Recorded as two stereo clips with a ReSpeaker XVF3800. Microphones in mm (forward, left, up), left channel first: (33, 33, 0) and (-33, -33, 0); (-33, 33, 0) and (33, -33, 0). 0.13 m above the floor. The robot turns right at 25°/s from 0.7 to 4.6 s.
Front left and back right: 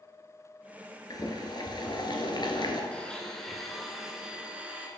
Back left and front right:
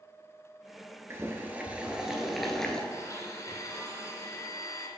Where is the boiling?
15° left, 1.0 m; by 2.8 s 55° left, 1.0 m.